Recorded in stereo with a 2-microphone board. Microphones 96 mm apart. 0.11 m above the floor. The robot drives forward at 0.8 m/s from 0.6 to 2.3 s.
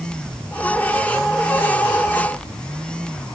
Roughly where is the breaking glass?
No breaking glass in this recording.